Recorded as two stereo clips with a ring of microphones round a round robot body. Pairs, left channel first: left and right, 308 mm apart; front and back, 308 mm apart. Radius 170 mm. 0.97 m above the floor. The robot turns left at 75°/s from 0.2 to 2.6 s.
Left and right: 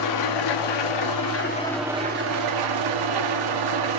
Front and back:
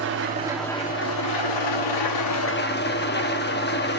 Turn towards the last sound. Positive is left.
turn(degrees=-60)